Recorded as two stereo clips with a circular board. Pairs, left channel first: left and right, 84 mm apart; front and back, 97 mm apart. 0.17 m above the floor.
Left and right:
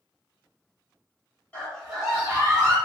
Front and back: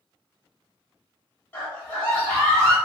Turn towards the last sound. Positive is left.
turn(degrees=-80)